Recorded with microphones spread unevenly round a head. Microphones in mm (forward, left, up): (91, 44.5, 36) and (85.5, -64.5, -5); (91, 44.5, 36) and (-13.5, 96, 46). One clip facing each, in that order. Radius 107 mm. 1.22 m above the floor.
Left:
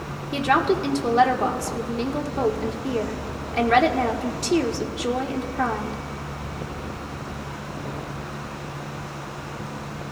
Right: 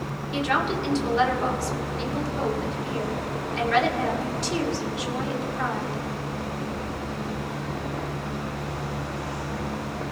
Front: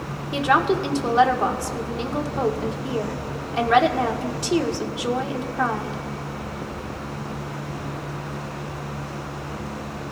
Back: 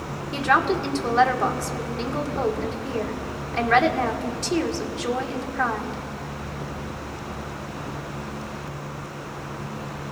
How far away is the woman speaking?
About 1.7 m.